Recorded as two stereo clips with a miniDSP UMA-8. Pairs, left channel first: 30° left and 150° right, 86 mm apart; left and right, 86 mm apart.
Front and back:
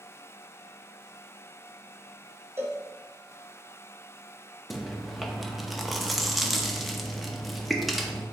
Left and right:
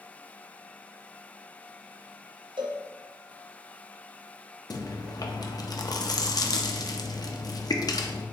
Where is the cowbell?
90° right, 0.6 m.